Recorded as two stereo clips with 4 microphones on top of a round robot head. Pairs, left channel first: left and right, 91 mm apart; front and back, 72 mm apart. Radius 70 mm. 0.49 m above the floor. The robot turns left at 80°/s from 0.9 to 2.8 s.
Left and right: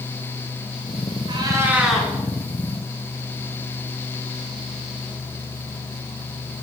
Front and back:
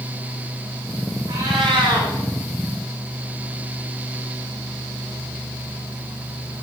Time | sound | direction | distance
1.3 | a cat meowing | 125° right | 3 m